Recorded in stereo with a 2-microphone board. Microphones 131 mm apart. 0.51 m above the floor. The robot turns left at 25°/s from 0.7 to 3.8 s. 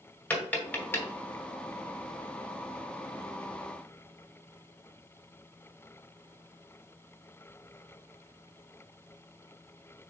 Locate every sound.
0.3 s tapping: 10° left (ahead or behind), 1.1 m; by 1.1 s 20° left (ahead or behind), 1.1 m